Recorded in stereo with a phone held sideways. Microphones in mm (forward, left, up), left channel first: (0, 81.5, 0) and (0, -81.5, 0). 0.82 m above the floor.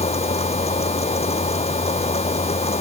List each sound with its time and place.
0.0 s a fan: 40° left (ahead or behind)